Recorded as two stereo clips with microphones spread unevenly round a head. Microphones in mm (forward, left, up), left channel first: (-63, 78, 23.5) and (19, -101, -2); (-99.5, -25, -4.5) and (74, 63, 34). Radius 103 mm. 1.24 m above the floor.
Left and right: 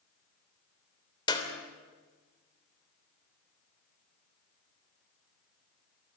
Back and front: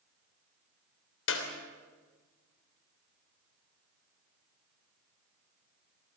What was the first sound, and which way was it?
A clap, 175° right.